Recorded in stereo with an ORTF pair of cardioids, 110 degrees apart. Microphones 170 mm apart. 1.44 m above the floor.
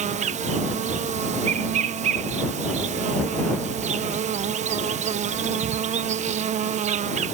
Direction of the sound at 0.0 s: 45° right.